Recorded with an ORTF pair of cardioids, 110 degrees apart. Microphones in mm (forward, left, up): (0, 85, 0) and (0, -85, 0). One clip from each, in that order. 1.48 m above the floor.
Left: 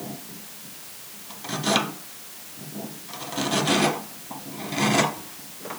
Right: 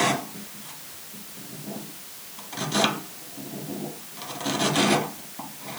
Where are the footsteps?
I don't hear footsteps.